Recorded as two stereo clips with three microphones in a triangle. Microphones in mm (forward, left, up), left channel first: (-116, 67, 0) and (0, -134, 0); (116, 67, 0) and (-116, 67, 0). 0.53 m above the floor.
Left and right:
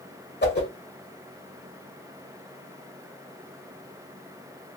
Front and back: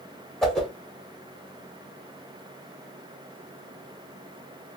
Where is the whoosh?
90° left, 1.1 m.